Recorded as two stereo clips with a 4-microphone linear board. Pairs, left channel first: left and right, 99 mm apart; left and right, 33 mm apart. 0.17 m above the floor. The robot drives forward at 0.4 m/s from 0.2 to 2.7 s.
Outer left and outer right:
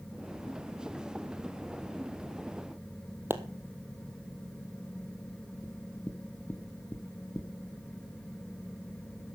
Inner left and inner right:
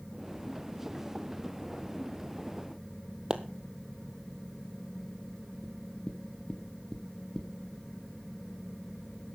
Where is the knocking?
20° left (ahead or behind), 1.9 m.